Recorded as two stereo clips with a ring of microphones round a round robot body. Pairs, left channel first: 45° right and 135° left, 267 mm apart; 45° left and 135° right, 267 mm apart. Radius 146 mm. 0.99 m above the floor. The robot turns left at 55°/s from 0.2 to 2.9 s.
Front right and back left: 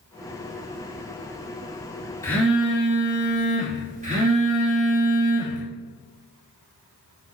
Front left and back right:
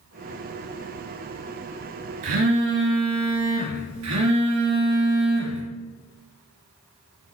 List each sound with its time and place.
2.2 s a phone buzzing: 125° right, 3 m; by 5.6 s 160° right, 3 m